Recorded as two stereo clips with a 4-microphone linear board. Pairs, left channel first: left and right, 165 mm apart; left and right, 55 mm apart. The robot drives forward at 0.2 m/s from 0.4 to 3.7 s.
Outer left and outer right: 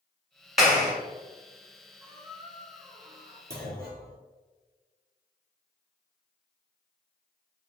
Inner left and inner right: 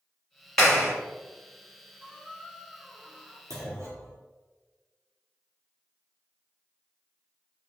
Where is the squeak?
20° right (ahead or behind), 1.1 m; by 3.4 s 25° right (ahead or behind), 0.9 m.